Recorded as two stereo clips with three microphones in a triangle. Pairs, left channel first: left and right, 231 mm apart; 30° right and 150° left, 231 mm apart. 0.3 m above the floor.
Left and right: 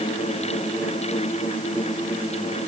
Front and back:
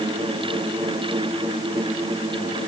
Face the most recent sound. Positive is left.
No sound to turn to.